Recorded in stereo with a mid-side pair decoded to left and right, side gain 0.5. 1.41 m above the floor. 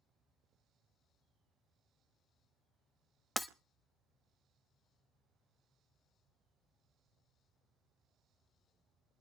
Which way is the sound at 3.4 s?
15° left.